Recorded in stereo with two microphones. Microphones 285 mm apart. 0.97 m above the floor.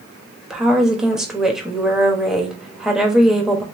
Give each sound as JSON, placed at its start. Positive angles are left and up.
{"t": 0.5, "sound": "a woman speaking", "side_deg": 0, "distance_m": 1.0}